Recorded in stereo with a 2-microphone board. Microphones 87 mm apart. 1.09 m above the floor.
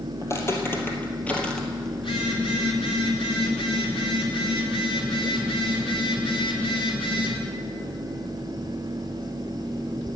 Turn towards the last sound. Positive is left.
turn(degrees=85)